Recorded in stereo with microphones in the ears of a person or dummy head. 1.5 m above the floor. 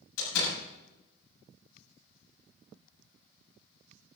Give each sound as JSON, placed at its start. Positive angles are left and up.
{"t": 0.2, "sound": "a door slam", "side_deg": 85, "distance_m": 7.5}